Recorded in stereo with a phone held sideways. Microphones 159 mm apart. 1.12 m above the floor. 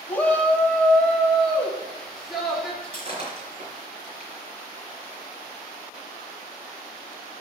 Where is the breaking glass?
40° right (ahead or behind), 4 m.